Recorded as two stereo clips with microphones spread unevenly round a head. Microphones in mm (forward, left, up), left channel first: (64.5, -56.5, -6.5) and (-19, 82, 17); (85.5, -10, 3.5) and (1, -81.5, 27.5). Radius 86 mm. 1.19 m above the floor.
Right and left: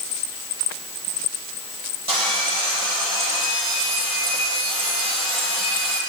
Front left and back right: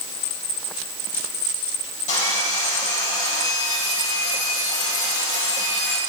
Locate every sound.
2.1 s sawing: 70° left, 8 m